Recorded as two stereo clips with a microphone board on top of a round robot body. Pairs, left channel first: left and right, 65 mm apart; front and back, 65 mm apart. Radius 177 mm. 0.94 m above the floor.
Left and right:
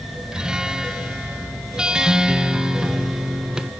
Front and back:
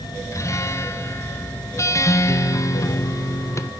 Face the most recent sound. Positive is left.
turn(degrees=-15)